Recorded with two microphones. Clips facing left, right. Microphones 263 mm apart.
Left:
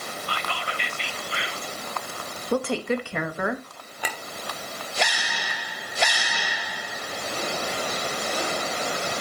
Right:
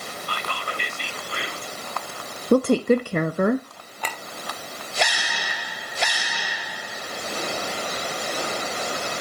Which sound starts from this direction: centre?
A clink, at 4.0 s.